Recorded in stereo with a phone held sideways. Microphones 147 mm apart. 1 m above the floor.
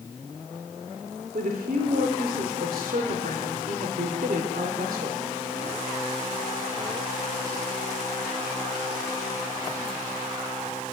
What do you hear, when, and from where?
1.3 s a woman speaking: 80° right, 3 m